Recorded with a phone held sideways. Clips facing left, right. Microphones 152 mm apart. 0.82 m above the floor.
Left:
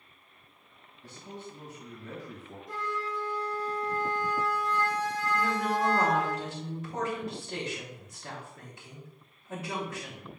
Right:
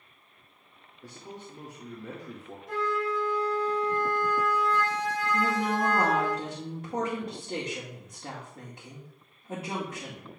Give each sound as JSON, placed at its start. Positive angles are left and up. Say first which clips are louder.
{"t": 1.0, "sound": "a man speaking", "louder": "even", "side_deg": -70, "distance_m": 2.0}
{"t": 2.7, "sound": "a flute", "louder": "right 6 dB", "side_deg": -70, "distance_m": 1.8}
{"t": 5.3, "sound": "a woman speaking", "louder": "right 1 dB", "side_deg": -55, "distance_m": 2.0}